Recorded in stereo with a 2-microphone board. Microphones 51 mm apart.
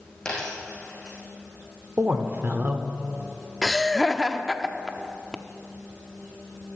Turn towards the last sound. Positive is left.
turn(degrees=5)  # may be behind; listen again after turning